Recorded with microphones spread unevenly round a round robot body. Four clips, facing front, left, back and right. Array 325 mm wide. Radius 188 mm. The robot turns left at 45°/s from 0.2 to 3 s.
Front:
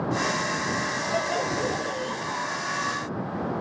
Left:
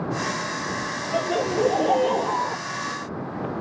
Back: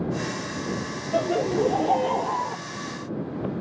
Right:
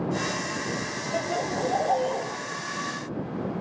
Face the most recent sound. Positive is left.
turn(degrees=90)